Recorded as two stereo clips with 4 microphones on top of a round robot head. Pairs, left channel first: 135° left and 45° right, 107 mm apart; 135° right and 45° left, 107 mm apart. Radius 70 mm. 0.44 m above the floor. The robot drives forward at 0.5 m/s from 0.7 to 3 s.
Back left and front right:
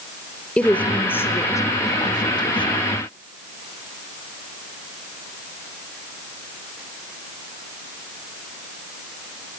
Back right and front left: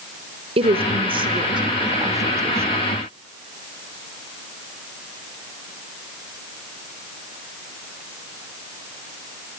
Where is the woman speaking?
60° left, 1.4 m; by 2.9 s 115° left, 1.3 m.